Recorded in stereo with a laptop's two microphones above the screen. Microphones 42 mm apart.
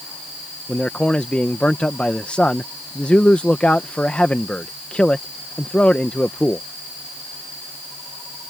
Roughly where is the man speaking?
Left.